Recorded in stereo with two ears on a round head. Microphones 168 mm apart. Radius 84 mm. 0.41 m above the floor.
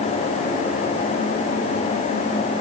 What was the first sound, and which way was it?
Only background noise.